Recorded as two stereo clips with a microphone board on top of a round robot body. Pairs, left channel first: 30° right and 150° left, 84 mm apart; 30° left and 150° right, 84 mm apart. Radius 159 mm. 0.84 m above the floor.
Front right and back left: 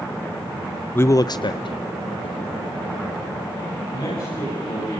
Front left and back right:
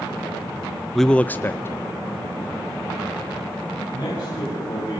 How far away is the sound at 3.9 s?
About 9 m.